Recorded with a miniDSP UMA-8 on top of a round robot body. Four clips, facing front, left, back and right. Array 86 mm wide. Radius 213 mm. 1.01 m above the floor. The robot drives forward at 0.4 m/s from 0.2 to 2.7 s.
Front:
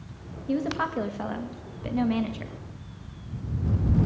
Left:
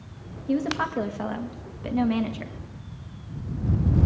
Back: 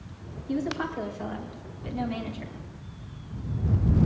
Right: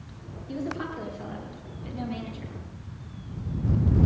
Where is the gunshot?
No gunshot in this recording.